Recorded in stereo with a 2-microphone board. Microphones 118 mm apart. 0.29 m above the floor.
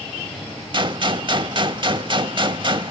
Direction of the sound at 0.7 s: 45° right (ahead or behind).